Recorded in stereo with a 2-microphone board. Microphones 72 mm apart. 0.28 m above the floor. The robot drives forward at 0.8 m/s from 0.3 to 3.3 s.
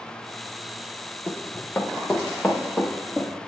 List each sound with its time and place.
1.3 s running footsteps: 25° left (ahead or behind), 3.5 m; by 3.3 s 10° left (ahead or behind), 6 m